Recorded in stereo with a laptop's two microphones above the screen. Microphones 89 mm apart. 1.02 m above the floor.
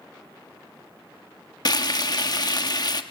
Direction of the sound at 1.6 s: 50° left (ahead or behind).